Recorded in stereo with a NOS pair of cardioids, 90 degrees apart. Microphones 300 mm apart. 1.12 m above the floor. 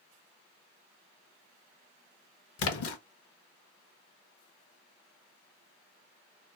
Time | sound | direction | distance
2.6 | a splash | 55° left | 0.9 m